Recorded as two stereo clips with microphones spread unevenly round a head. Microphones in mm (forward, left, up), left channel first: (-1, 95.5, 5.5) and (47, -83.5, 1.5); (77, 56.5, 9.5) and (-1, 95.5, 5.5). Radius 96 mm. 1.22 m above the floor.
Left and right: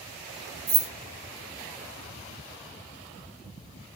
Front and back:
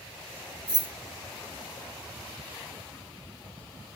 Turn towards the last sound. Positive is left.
turn(degrees=-135)